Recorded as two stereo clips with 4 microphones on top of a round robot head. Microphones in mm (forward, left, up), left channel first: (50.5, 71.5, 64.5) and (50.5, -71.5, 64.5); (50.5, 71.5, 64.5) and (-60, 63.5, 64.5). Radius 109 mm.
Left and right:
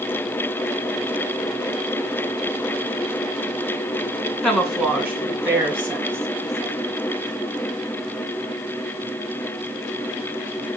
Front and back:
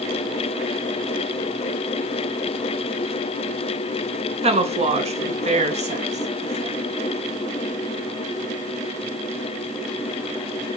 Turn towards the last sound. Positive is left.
turn(degrees=-160)